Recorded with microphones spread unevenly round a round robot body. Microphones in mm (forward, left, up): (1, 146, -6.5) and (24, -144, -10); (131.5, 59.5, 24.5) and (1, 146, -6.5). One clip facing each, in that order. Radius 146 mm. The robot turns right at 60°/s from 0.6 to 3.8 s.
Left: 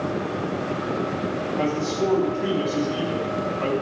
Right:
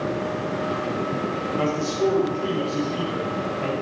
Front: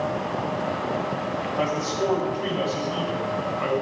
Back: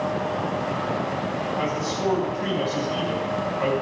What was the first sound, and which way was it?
A man speaking, 30° right.